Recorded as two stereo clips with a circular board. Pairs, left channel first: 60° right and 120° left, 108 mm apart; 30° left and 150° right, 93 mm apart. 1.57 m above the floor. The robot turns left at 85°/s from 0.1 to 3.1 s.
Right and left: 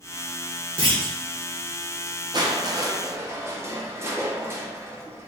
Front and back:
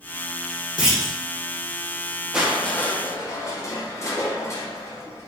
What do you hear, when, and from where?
0.8 s a clunk: 130° left, 0.9 m; by 1.1 s 100° left, 0.9 m
2.3 s crushing: 130° left, 0.7 m; by 5.3 s 65° left, 0.7 m